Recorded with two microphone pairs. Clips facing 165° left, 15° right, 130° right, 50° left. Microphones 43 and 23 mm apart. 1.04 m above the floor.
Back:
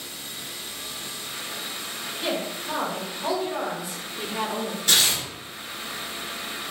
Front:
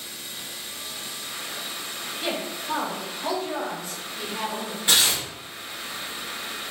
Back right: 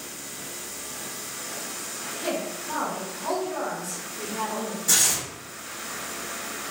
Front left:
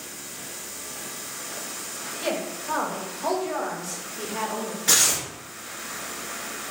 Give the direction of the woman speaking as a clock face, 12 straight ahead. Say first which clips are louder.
Back 1 dB, front left 1 dB; 10 o'clock.